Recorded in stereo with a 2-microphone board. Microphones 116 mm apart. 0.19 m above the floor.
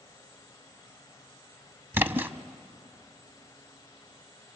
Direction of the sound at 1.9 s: 20° right (ahead or behind).